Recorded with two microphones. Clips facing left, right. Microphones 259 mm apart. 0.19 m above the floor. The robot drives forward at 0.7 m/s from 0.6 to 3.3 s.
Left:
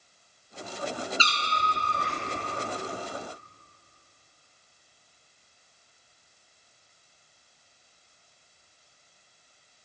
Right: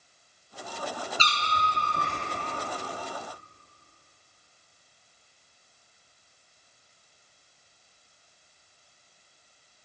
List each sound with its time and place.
1.2 s a cat meowing: 55° right (ahead or behind), 1.2 m; by 2.2 s 45° right (ahead or behind), 1.4 m